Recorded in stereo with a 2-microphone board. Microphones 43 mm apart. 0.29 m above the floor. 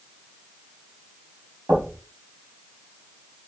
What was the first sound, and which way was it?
Knocking, 75° right (ahead or behind).